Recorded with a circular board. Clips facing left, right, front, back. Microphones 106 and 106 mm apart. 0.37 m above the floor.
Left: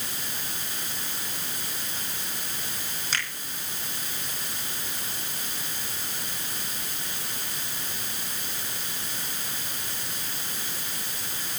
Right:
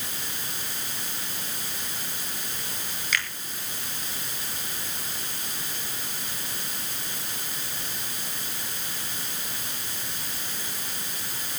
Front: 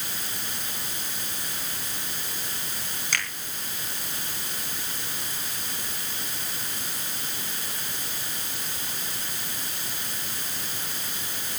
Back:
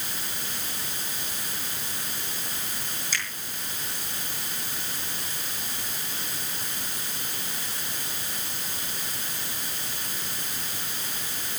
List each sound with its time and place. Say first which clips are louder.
3.1 s a finger snap: right 3 dB, front 3 dB; 30° left, 7.5 m